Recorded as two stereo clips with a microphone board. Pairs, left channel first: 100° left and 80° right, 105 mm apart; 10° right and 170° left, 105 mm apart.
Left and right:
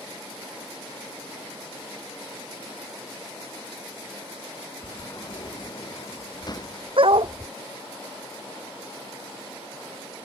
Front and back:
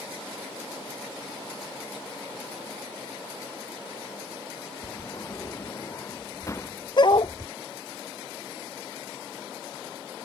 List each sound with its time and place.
4.8 s a sliding door: 50° left
7.0 s a dog barking: 50° right